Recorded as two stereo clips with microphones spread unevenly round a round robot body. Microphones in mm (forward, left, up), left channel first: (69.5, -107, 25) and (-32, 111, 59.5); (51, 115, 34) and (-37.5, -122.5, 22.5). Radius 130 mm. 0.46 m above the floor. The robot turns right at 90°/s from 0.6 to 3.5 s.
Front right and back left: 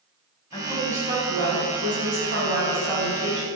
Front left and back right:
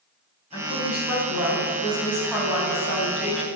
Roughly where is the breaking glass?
No breaking glass in this recording.